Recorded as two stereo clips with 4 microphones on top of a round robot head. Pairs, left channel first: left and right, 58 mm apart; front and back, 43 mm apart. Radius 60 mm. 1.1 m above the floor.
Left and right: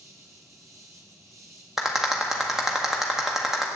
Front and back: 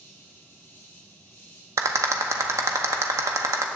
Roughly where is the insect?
Ahead right.